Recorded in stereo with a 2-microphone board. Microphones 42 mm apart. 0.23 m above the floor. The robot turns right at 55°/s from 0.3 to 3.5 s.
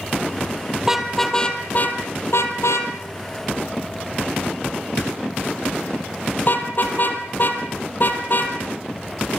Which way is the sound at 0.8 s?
15° right (ahead or behind).